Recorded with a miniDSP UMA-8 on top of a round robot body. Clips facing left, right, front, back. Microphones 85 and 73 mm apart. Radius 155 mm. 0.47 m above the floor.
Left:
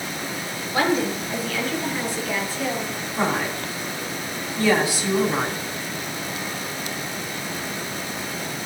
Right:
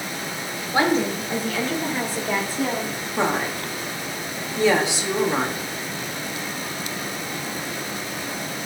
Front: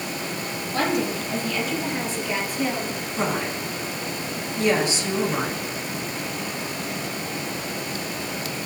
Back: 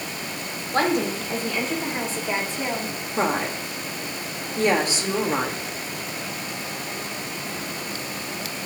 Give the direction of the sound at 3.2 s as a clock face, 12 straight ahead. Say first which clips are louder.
Right 1 dB, back 3 dB; 5 o'clock.